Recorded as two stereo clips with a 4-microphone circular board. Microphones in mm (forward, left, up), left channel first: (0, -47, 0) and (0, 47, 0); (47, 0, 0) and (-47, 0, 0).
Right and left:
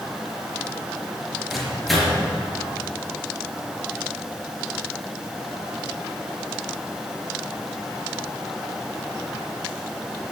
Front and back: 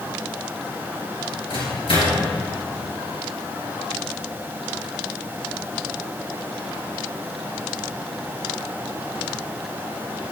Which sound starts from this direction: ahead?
A microwave, at 1.5 s.